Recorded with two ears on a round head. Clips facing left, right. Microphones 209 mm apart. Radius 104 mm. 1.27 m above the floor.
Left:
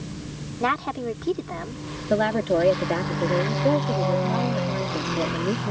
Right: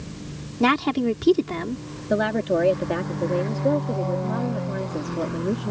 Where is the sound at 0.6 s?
50° right (ahead or behind).